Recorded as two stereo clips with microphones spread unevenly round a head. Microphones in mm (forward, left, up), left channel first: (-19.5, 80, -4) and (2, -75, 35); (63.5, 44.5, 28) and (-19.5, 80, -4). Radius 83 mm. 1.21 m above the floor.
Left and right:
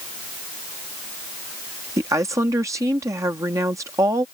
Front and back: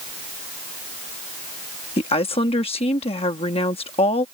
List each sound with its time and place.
2.0 s a woman speaking: 5° right